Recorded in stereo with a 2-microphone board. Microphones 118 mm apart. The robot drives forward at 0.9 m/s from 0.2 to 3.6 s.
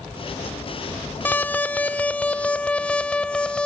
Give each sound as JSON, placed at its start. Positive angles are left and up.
{"t": 1.2, "sound": "an alarm", "side_deg": 15}